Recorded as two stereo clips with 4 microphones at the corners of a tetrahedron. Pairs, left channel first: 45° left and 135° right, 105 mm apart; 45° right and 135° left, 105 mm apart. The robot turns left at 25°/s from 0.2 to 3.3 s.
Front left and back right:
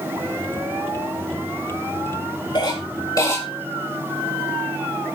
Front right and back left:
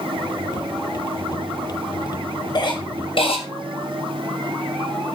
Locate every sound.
2.5 s a cough: 5° left, 7.5 m; by 3.4 s 15° right, 7.5 m